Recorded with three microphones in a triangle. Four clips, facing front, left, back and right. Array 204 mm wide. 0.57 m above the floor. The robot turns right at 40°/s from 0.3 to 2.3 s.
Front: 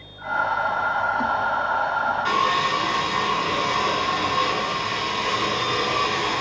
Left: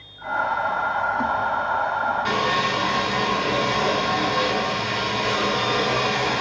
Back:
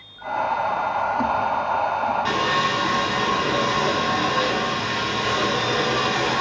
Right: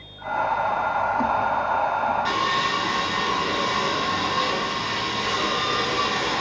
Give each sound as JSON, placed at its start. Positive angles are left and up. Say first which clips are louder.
{"t": 2.2, "sound": "sawing", "louder": "left 1 dB, front 1 dB", "azimuth_deg": 135, "distance_m": 4.0}